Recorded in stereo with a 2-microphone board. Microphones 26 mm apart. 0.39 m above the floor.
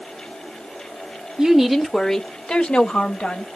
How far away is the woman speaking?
About 0.9 m.